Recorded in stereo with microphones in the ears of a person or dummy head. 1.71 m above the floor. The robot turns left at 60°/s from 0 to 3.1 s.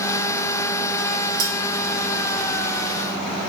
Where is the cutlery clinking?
45° right (ahead or behind), 1.1 m.